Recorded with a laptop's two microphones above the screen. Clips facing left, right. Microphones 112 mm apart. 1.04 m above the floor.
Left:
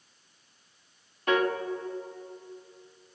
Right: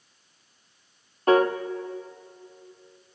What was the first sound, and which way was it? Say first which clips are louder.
A piano: right 6 dB; 35° right (ahead or behind).